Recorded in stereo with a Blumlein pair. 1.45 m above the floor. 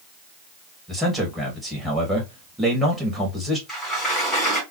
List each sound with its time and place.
0.9 s a man speaking: 5° right, 2.5 m
3.7 s a sliding door: 10° left, 3 m